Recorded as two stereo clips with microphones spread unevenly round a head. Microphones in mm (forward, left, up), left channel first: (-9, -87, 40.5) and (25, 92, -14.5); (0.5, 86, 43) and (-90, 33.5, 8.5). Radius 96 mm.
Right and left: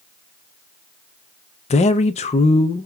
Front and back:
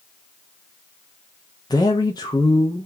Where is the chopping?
I don't hear chopping.